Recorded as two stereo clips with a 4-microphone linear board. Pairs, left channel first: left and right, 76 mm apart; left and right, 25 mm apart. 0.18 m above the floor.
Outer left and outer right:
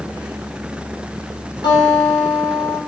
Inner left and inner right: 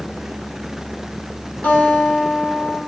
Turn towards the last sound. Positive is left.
turn(degrees=80)